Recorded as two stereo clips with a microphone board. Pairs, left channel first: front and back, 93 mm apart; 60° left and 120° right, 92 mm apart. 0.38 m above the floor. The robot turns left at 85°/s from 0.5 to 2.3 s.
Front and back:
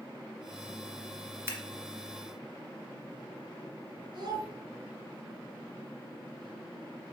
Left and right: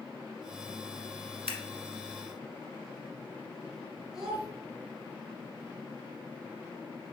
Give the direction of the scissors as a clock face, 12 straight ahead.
4 o'clock.